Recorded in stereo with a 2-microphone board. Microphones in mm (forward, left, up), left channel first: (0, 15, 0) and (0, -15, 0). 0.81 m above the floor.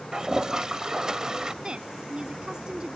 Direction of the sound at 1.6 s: 35° right (ahead or behind).